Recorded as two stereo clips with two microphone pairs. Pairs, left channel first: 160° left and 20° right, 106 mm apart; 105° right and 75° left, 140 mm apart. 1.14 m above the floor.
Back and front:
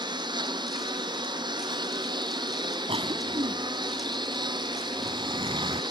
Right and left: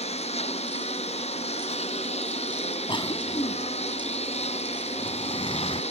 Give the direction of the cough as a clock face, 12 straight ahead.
2 o'clock.